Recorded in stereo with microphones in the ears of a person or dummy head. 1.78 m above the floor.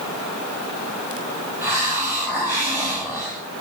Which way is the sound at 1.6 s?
15° right (ahead or behind).